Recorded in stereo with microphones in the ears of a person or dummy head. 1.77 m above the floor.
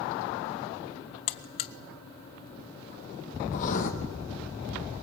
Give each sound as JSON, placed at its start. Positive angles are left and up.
{"t": 1.3, "sound": "a buzzer", "side_deg": 45, "distance_m": 0.6}
{"t": 3.5, "sound": "writing", "side_deg": 60, "distance_m": 2.5}